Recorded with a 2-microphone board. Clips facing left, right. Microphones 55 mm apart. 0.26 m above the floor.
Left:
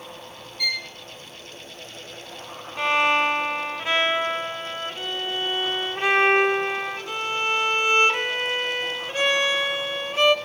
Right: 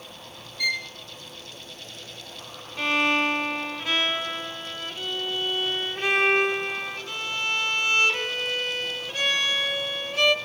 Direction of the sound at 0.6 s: Centre (ahead or behind).